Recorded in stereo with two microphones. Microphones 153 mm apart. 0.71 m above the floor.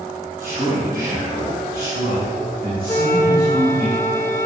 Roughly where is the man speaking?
Right.